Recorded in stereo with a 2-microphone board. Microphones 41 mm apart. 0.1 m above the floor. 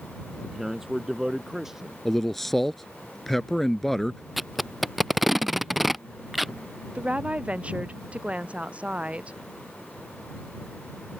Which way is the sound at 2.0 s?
5° left (ahead or behind).